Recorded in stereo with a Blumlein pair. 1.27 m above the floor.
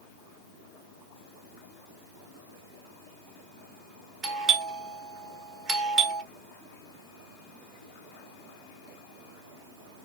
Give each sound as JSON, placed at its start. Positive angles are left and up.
{"t": 4.2, "sound": "a doorbell", "azimuth_deg": -30, "distance_m": 1.1}